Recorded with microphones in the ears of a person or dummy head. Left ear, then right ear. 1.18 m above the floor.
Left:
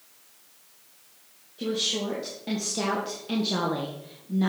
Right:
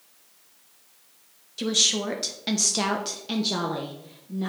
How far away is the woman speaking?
About 1.1 m.